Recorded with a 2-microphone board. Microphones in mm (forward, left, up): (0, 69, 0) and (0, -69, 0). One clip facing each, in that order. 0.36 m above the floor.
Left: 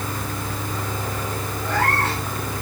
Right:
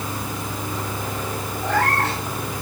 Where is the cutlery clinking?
I don't hear cutlery clinking.